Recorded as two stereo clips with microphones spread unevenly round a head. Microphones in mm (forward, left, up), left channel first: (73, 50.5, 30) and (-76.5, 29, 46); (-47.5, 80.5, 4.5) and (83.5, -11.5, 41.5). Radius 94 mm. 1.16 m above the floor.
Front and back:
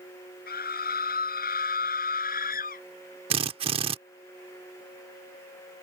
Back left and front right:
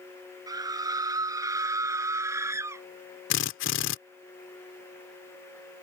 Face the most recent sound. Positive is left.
turn(degrees=140)